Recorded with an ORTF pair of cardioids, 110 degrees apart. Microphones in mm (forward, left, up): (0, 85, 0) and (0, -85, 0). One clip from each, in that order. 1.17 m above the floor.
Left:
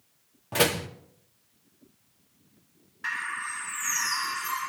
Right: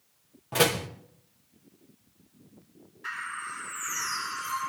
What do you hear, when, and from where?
0.5 s a door slam: 5° left, 2.0 m
3.0 s a bird: 65° left, 5 m